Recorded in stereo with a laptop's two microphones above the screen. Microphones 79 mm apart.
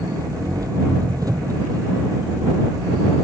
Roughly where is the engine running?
Right.